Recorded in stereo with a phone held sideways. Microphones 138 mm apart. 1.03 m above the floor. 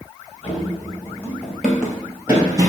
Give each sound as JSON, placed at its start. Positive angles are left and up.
{"t": 0.4, "sound": "running footsteps", "side_deg": 35, "distance_m": 1.5}